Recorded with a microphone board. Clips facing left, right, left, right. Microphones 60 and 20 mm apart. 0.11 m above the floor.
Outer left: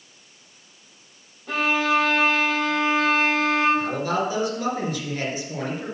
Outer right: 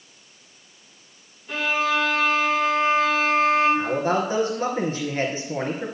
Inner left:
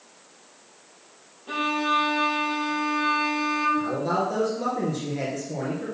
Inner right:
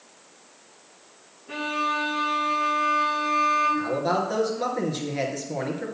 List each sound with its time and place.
1.5 s a violin: 70° left (ahead or behind), 4.5 m
3.8 s a man speaking: 30° right (ahead or behind), 2 m